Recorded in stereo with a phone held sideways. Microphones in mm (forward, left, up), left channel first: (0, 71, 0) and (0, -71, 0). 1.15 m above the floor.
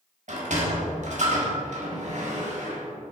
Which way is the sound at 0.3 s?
55° right (ahead or behind).